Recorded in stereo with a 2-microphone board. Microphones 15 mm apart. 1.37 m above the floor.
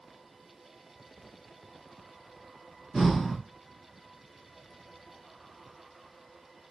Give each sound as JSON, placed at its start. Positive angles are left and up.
{"t": 2.9, "sound": "breathing", "side_deg": 30, "distance_m": 2.5}